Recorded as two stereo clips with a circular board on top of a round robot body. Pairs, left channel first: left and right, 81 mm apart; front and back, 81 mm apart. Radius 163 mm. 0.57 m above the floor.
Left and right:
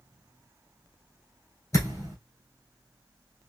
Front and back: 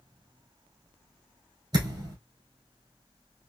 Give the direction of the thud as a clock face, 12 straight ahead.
7 o'clock.